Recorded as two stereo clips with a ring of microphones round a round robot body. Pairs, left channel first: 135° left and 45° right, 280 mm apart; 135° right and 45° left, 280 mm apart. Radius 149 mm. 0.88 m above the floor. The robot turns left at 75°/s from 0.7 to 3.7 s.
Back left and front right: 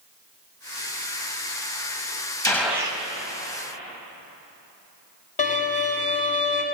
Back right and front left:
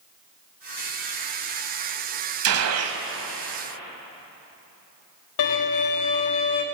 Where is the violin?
160° right, 1.4 m.